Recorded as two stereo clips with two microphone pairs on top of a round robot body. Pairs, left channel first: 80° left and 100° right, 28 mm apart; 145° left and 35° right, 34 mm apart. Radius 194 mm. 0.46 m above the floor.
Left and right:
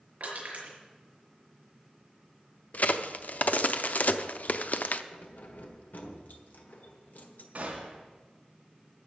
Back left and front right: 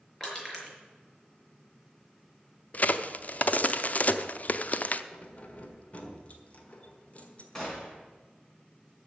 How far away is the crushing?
About 4.5 m.